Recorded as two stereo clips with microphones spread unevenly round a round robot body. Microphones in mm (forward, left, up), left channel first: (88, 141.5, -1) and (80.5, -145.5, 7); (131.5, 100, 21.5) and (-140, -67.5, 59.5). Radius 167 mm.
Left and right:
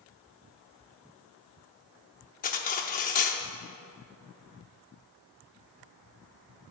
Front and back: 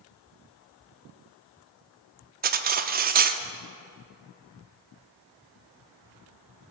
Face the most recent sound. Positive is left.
turn(degrees=145)